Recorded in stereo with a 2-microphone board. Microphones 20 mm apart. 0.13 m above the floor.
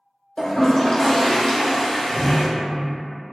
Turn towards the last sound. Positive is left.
turn(degrees=10)  # may be behind; listen again after turning